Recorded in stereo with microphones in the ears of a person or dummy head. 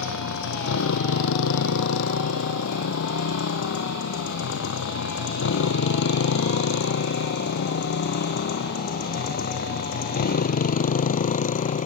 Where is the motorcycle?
85° left; by 11.9 s 40° left (ahead or behind).